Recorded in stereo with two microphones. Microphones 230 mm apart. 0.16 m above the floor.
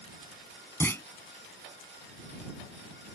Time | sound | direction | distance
0.8 | a clunk | 10° left (ahead or behind) | ?